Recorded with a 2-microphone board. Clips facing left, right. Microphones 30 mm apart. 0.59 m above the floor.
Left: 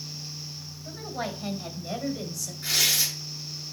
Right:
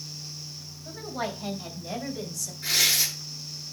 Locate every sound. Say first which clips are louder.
0.8 s a woman speaking: right 1 dB; 15° right (ahead or behind), 4 m; by 2.5 s centre (ahead or behind), 2.5 m
2.6 s tearing paper: right 1 dB; 10° right (ahead or behind), 6 m